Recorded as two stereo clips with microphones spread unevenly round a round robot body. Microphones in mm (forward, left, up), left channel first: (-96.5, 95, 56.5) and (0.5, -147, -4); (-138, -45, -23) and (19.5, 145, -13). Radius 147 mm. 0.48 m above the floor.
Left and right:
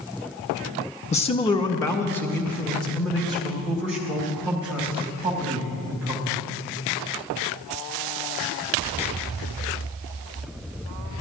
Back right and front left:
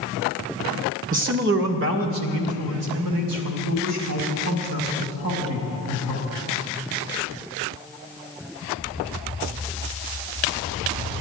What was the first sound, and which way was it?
A man speaking, 45° left.